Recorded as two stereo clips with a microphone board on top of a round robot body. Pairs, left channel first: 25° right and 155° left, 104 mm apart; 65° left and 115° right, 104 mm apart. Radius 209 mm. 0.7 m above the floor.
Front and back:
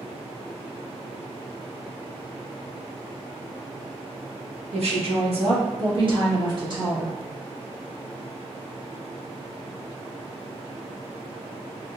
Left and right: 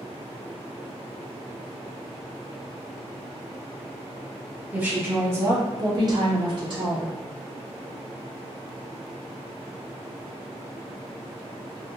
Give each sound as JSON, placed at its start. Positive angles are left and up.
{"t": 4.7, "sound": "a woman speaking", "azimuth_deg": 170, "distance_m": 1.3}